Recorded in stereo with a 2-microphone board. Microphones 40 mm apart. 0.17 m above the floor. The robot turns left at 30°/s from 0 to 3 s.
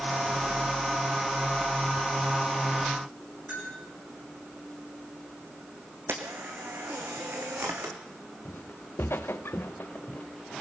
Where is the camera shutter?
80° right, 2.5 m.